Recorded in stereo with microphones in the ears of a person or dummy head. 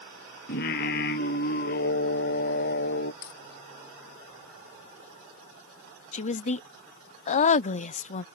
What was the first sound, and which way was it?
Singing, 55° left (ahead or behind).